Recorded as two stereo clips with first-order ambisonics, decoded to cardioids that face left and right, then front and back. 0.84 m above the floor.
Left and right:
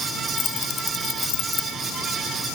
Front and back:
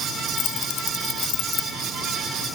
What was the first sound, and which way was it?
Keys jangling, 35° left.